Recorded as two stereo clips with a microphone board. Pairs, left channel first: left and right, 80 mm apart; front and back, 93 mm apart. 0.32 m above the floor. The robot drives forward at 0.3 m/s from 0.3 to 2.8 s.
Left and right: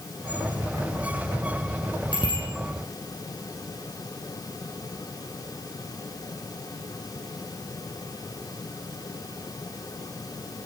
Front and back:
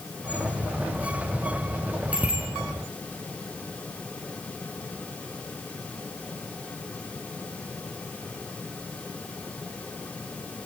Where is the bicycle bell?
105° left, 7 m.